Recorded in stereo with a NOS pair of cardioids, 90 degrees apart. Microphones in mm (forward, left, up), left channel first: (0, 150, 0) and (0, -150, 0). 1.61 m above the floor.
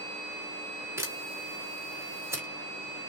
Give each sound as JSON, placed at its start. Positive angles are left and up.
{"t": 1.0, "sound": "a camera shutter", "azimuth_deg": -10, "distance_m": 1.4}